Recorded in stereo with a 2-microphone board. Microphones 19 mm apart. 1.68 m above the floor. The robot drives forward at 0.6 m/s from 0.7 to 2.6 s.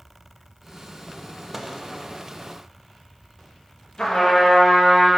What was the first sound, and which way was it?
A microwave, 10° right (ahead or behind).